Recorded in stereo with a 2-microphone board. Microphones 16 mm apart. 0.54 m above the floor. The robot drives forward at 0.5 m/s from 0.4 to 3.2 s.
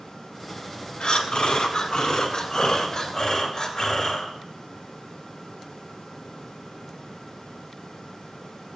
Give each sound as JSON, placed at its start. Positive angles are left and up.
{"t": 1.0, "sound": "breathing", "side_deg": 60, "distance_m": 1.1}